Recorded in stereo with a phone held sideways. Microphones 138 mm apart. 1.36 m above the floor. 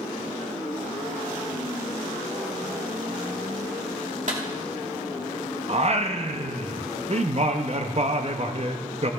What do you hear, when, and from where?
4.3 s a clap: 60° right (ahead or behind), 2.5 m
5.7 s singing: 45° right (ahead or behind), 0.8 m